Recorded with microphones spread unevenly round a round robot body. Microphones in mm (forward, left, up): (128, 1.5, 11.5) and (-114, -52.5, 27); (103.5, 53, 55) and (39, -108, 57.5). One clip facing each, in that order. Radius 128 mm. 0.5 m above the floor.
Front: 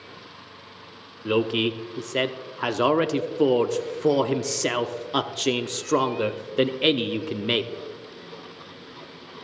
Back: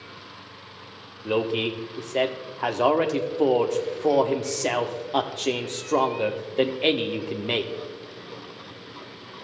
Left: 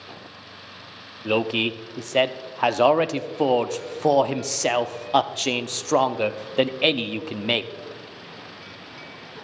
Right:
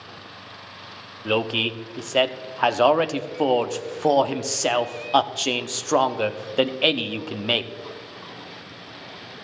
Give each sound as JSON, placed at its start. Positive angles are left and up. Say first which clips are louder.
{"t": 1.2, "sound": "a man speaking", "louder": "front 2 dB, left 1 dB", "azimuth_deg": -10, "distance_m": 0.7}